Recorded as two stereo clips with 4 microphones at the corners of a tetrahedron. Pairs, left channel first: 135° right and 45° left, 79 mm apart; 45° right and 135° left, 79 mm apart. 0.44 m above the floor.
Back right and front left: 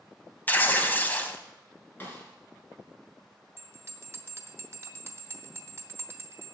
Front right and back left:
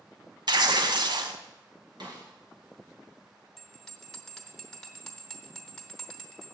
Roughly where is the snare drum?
Behind.